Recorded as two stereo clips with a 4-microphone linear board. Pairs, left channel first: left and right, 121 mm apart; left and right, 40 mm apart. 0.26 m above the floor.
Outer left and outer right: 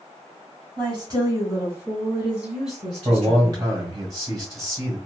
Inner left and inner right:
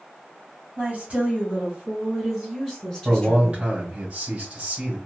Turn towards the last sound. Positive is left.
turn(degrees=-30)  # may be behind; listen again after turning